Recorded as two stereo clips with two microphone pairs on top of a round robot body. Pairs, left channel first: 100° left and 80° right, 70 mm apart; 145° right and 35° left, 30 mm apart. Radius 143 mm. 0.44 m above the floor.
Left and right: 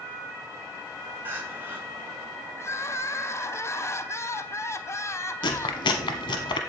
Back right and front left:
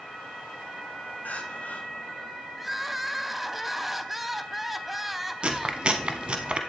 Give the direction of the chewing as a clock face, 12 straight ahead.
9 o'clock.